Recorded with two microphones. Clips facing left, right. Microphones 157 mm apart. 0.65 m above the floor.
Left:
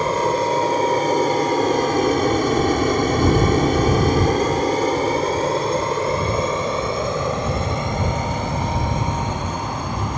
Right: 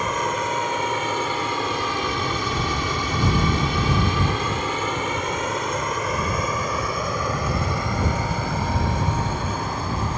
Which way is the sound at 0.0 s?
35° left (ahead or behind).